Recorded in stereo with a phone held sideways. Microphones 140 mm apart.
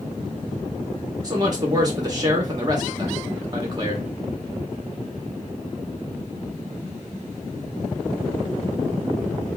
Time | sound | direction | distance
1.2 | a man speaking | 30° right (ahead or behind) | 0.7 m